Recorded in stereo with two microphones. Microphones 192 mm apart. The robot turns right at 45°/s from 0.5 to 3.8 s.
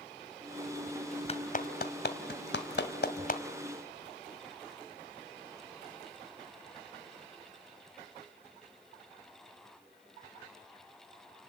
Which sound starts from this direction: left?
A clap, at 1.3 s.